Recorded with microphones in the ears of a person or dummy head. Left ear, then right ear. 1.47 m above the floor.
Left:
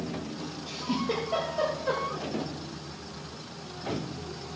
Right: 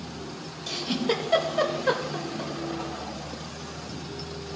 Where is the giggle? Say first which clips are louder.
Right 4 dB; 45° right (ahead or behind), 2.5 m.